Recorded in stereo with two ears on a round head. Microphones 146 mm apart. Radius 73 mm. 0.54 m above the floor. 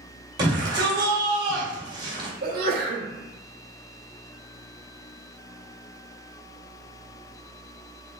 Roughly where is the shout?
Right.